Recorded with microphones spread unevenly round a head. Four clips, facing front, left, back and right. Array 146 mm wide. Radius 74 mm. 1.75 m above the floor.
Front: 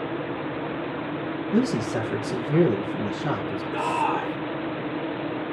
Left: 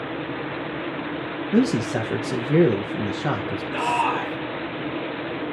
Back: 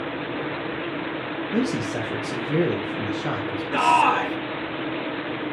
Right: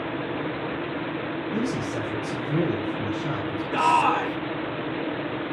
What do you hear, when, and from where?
1.5 s a man speaking: 90° left, 1.2 m
3.7 s a shout: 155° right, 3 m